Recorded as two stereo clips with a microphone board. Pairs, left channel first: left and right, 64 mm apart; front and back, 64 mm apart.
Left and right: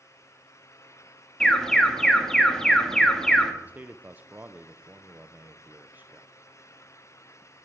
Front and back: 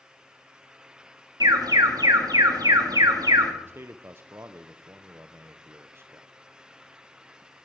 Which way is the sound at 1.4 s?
170° left.